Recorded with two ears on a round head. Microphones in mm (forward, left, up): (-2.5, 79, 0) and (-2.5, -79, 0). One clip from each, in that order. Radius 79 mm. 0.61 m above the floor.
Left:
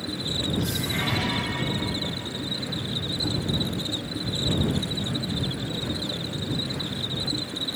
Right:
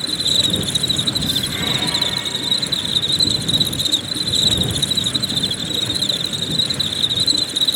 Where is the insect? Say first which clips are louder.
Right 12 dB; 70° right (ahead or behind).